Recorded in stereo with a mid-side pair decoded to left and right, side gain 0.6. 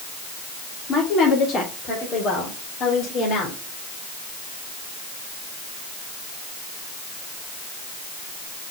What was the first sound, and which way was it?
A woman speaking, 45° left.